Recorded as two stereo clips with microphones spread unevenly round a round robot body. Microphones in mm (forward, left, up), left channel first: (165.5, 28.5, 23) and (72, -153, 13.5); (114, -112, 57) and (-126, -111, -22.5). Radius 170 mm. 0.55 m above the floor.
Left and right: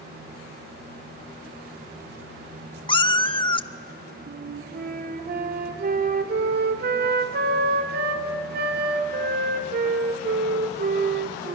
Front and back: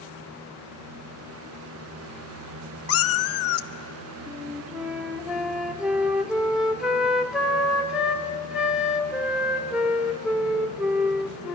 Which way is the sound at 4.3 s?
110° right.